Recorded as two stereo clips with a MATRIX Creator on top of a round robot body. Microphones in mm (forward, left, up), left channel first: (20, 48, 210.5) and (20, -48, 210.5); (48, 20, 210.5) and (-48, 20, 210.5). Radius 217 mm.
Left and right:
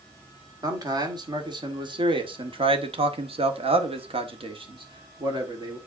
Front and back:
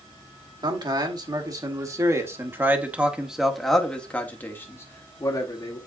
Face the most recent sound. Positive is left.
turn(degrees=-45)